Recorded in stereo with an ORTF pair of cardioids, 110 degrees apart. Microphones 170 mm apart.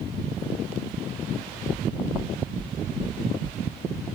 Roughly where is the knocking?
Ahead right.